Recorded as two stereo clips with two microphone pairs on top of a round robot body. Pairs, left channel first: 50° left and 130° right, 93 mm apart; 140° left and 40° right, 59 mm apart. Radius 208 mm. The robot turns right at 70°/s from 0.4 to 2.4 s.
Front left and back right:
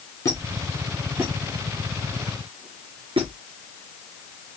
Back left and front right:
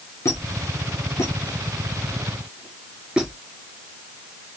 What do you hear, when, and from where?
0.2 s a squeak: 100° left, 2.5 m; by 3.3 s 120° right, 2.5 m